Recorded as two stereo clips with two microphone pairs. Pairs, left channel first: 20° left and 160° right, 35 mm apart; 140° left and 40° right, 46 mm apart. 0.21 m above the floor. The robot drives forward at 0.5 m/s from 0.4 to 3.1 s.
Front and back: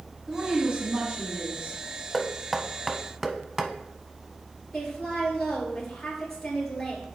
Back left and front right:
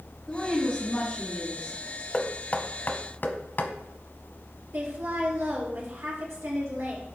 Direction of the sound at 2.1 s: 90° left.